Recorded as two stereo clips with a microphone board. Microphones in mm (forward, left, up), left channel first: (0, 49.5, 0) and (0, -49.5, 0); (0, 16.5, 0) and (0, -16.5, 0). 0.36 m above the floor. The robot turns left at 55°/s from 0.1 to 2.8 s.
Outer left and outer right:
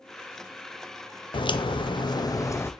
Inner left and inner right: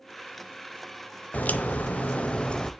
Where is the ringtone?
I don't hear a ringtone.